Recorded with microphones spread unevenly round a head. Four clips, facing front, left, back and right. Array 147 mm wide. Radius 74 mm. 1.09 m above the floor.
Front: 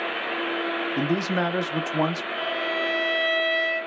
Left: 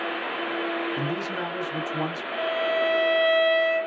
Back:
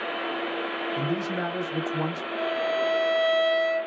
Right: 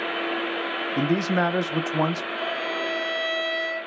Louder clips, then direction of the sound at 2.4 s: Left 4 dB, back 4 dB; 160° left.